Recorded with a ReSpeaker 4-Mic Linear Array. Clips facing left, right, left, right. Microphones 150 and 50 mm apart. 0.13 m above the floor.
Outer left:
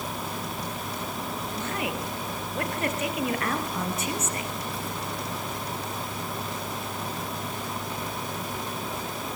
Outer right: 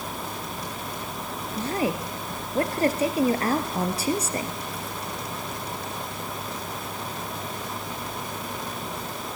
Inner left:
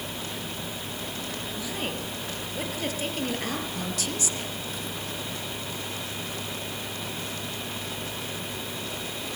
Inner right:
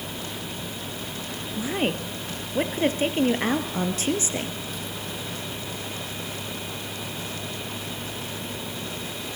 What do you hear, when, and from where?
1.6 s a woman speaking: 35° right (ahead or behind), 2 m